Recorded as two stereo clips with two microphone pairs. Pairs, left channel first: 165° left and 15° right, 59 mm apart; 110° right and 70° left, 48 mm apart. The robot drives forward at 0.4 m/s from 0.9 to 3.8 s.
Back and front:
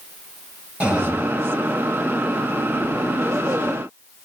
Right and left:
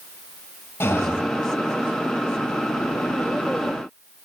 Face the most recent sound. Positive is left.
turn(degrees=-95)